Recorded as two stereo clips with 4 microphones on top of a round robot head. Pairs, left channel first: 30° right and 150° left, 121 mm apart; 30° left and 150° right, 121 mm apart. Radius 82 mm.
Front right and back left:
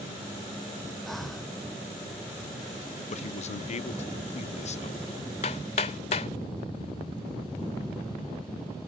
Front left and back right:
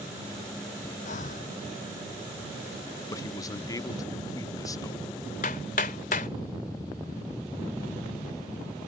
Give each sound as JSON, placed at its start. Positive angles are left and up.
{"t": 1.1, "sound": "breathing", "azimuth_deg": 60}
{"t": 3.1, "sound": "a man speaking", "azimuth_deg": -30}
{"t": 5.4, "sound": "hammering", "azimuth_deg": 5}